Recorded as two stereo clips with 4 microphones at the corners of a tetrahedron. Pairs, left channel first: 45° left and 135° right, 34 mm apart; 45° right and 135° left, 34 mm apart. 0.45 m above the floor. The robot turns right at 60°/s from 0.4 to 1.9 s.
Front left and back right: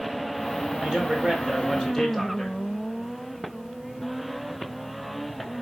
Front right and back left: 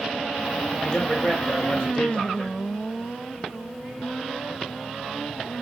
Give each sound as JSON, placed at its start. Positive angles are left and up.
{"t": 0.8, "sound": "a man speaking", "azimuth_deg": -100, "distance_m": 1.0}